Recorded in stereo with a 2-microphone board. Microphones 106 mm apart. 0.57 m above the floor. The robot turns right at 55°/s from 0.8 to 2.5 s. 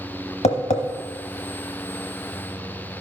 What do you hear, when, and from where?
0.4 s tapping: 80° left, 1.0 m